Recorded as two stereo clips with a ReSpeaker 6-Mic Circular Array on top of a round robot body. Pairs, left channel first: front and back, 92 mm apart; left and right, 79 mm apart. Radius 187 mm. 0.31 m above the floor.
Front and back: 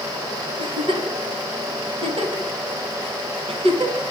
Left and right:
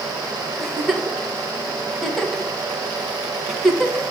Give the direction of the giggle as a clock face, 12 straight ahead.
6 o'clock.